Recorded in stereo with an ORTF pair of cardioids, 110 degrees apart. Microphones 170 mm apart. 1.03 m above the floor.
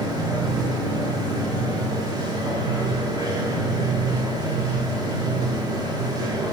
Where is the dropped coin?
No dropped coin in this recording.